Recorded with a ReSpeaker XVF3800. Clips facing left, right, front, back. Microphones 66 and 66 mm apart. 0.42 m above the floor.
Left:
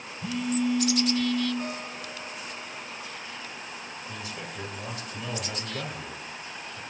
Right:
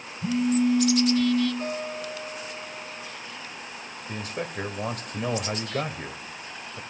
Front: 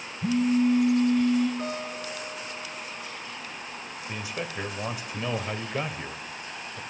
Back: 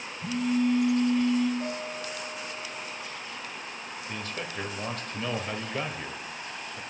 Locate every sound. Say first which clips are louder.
0.2 s a phone buzzing: right 5 dB, front 3 dB; 30° right, 2.5 m
1.6 s a guitar: right 4 dB, front 1 dB; 5° right, 4 m
4.1 s a man speaking: right 8 dB, front 2 dB; 75° right, 1.6 m